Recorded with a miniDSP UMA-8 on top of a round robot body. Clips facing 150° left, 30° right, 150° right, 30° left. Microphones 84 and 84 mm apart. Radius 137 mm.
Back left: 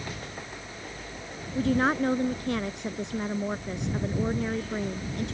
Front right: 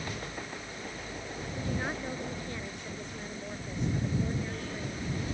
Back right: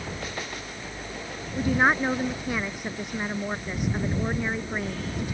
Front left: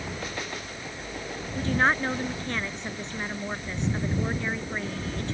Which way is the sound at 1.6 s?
130° left.